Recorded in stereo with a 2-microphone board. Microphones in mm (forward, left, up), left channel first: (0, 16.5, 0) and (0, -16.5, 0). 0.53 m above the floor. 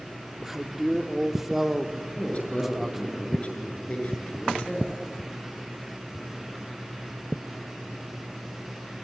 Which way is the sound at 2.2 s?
35° left (ahead or behind).